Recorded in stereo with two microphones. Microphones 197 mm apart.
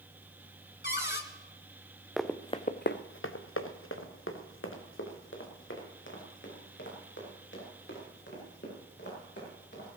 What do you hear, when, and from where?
0.8 s a cupboard door: 55° left (ahead or behind), 1.1 m
2.2 s running footsteps: centre (ahead or behind), 1.1 m; by 10.0 s 60° left (ahead or behind), 10 m